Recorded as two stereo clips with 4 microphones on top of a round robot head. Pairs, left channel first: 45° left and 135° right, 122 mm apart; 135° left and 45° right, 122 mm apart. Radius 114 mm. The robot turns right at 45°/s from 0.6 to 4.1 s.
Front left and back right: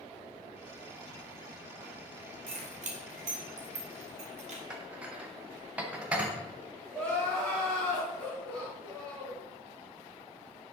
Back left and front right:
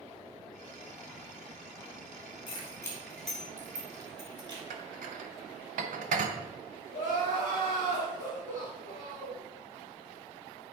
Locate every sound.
2.5 s keys jangling: 175° right, 1.5 m; by 4.6 s 100° right, 1.5 m
4.7 s dishes clattering: 55° right, 0.8 m
6.9 s crying: 35° right, 3.5 m